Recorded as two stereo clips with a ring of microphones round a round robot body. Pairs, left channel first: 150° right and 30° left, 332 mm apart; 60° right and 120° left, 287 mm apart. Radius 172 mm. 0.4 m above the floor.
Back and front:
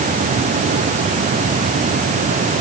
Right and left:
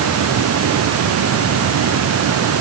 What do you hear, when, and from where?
Only background noise.